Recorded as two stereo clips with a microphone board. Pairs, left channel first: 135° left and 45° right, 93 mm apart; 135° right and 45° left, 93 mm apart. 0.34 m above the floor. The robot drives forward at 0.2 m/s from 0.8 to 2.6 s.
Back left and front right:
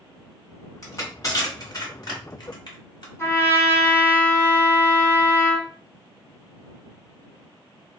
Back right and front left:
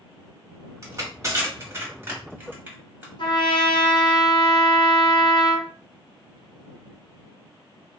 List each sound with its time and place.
0.8 s crushing: 90° left, 1.2 m; by 3.1 s 110° left, 1.3 m
3.2 s a trumpet: 160° right, 0.9 m